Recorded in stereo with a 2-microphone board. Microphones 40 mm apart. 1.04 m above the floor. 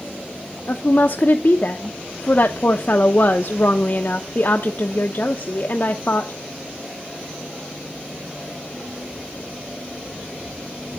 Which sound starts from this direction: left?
A woman speaking, at 0.7 s.